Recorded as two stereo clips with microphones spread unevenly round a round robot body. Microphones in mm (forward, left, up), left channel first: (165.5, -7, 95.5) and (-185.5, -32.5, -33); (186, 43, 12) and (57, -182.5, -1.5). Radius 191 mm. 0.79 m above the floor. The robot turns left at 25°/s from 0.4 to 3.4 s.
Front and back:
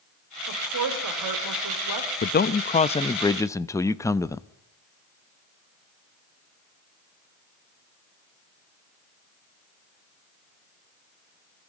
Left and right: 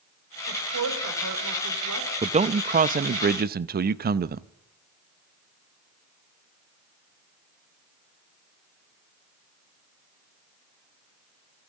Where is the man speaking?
70° right, 0.5 m; by 4.5 s 100° right, 0.5 m.